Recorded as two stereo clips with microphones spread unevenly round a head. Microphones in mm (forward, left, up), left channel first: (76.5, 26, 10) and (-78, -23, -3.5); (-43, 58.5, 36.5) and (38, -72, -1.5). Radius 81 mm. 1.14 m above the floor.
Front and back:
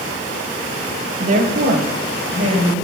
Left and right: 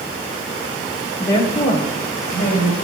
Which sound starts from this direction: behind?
A woman speaking, at 1.2 s.